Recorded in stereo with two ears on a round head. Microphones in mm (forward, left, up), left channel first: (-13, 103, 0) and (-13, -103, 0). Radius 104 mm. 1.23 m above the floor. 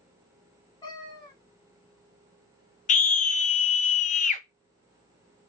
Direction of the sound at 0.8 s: 20° left (ahead or behind).